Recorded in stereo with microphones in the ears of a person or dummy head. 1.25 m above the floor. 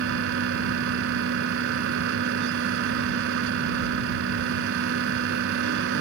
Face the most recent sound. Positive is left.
turn(degrees=-65)  # may be behind; listen again after turning